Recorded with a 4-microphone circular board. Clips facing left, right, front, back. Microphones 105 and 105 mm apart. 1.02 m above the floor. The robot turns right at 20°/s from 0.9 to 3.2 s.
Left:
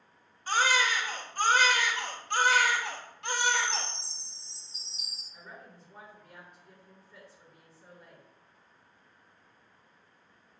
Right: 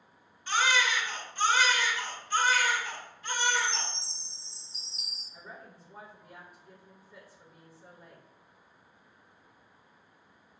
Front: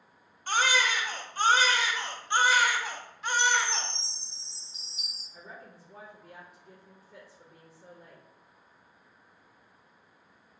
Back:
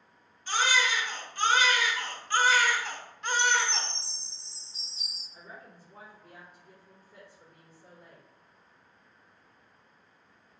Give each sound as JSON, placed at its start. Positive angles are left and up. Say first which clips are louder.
{"t": 0.5, "sound": "a baby crying", "louder": "left 1 dB, front 1 dB", "azimuth_deg": 40, "distance_m": 0.8}
{"t": 3.4, "sound": "a chime", "louder": "even, even", "azimuth_deg": -75, "distance_m": 2.5}
{"t": 5.3, "sound": "a woman speaking", "louder": "right 1 dB, front 1 dB", "azimuth_deg": -15, "distance_m": 1.3}